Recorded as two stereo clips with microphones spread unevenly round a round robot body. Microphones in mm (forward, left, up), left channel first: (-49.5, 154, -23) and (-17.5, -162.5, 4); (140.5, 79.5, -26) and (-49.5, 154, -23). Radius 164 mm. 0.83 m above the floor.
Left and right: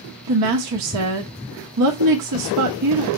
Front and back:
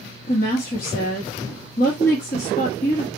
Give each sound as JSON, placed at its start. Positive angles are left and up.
{"t": 0.3, "sound": "a woman speaking", "azimuth_deg": -65, "distance_m": 0.9}